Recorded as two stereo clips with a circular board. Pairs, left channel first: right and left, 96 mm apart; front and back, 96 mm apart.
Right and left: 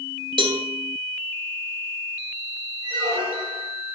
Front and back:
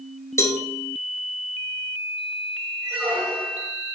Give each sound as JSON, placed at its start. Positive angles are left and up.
{"t": 0.4, "sound": "a cowbell", "azimuth_deg": 60, "distance_m": 1.6}
{"t": 2.8, "sound": "a squeak", "azimuth_deg": 105, "distance_m": 5.5}